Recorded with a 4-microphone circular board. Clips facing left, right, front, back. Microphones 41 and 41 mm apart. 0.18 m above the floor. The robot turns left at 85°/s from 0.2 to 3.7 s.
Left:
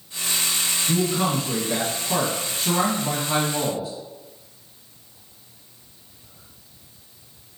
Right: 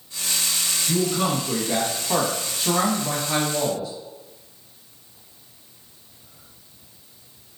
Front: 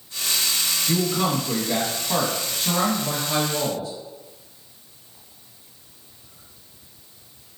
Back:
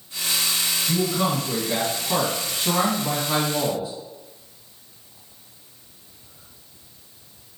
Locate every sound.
0.9 s a man speaking: 25° left, 1.0 m; by 3.9 s 145° left, 1.0 m